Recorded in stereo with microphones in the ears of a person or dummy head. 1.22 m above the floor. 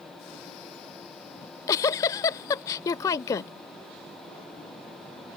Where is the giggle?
20° left (ahead or behind).